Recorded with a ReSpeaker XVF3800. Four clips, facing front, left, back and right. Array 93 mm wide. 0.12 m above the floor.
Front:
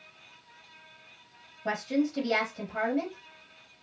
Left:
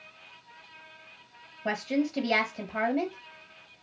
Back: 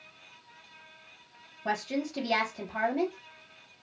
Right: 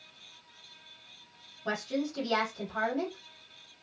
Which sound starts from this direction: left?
A woman speaking, at 1.6 s.